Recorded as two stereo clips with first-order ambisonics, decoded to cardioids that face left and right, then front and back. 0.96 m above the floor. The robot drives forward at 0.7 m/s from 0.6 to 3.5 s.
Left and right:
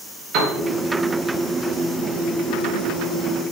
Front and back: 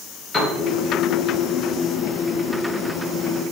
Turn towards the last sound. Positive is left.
turn(degrees=-160)